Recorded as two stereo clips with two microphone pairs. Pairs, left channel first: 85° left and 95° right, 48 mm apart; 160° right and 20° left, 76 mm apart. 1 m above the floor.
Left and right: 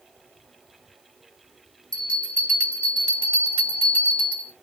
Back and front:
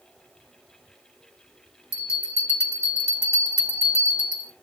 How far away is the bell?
About 1.0 m.